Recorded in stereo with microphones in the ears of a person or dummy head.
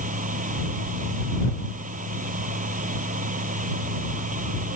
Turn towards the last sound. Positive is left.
turn(degrees=-35)  # may be behind; listen again after turning